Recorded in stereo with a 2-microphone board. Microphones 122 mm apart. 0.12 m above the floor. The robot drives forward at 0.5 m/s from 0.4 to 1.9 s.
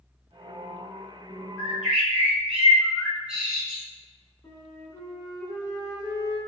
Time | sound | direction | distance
1.6 | a bird | 10° right (ahead or behind) | 0.8 m
4.4 | a flute | 25° left (ahead or behind) | 0.8 m